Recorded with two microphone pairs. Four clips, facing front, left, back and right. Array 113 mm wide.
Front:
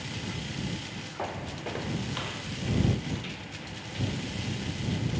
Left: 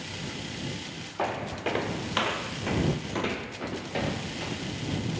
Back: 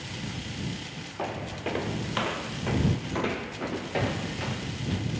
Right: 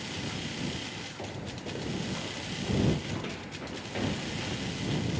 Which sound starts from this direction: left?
Footsteps, at 1.2 s.